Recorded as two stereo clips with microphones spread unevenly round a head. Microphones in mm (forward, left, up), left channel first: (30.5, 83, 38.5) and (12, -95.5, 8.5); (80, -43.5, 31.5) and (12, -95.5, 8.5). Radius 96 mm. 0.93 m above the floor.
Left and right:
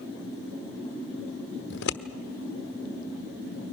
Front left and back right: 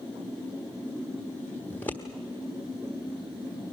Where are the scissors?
120° left, 1.1 m.